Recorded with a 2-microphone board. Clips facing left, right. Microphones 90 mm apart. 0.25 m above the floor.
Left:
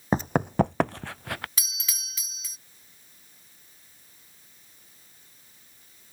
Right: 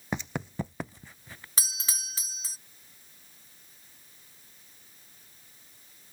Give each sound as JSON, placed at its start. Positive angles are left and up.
{"t": 0.1, "sound": "running footsteps", "side_deg": 40}
{"t": 1.6, "sound": "a doorbell", "side_deg": -35}